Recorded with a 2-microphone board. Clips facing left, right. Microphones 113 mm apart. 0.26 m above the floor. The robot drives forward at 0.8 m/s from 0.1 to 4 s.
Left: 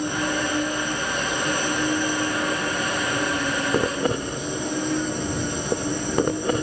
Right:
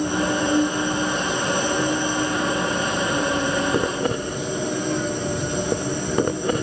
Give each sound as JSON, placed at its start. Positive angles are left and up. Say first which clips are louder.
{"t": 0.0, "sound": "an insect", "louder": "right 3 dB", "side_deg": -35, "distance_m": 2.5}